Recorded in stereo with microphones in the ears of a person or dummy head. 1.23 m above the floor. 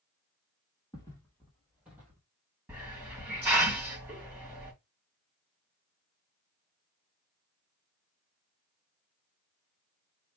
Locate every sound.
0.9 s footsteps: 20° left (ahead or behind), 2 m; by 2.2 s 10° right (ahead or behind), 2 m
2.7 s a hiss: 5° right (ahead or behind), 2 m